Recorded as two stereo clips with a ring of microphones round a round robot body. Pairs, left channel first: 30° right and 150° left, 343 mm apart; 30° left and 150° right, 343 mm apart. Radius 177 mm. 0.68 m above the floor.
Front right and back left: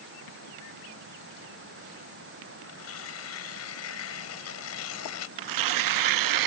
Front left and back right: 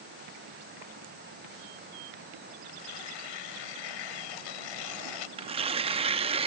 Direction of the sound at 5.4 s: 140° left.